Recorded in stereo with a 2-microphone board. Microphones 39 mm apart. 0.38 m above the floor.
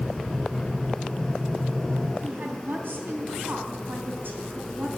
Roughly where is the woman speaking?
Right.